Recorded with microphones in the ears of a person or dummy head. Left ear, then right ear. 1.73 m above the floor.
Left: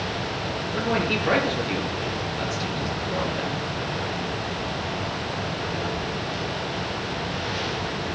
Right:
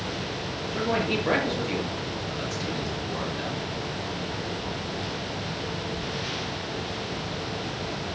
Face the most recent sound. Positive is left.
turn(degrees=5)  # may be behind; listen again after turning